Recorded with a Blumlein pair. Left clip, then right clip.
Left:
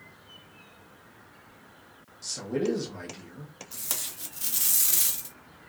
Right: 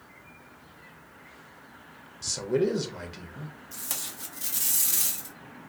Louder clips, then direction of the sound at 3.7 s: Left 1 dB; 10° left.